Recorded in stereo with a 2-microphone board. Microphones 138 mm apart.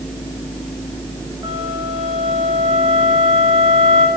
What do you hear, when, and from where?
1.4 s a flute: 30° right (ahead or behind), 5.5 m